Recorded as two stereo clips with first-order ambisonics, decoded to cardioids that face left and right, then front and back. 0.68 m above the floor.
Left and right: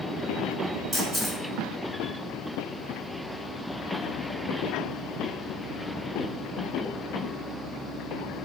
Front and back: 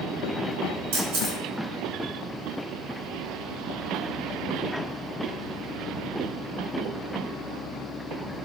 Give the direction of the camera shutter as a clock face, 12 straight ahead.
6 o'clock.